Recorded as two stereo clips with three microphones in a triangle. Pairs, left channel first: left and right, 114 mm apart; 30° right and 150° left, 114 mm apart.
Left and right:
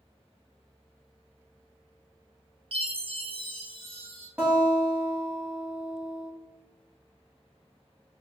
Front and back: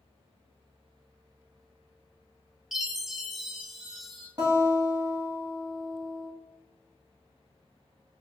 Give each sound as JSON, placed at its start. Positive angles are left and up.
{"t": 2.7, "sound": "a chime", "azimuth_deg": -125, "distance_m": 0.5}
{"t": 4.4, "sound": "a guitar", "azimuth_deg": -165, "distance_m": 1.1}